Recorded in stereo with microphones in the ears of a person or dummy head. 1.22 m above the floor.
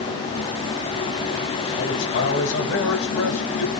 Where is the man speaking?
70° left (ahead or behind), 10 m; by 3.7 s 75° left (ahead or behind), 10 m.